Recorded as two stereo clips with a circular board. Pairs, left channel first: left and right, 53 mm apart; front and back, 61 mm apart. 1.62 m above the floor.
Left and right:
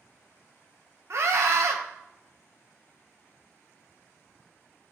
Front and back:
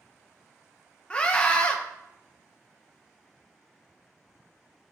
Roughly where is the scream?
Right.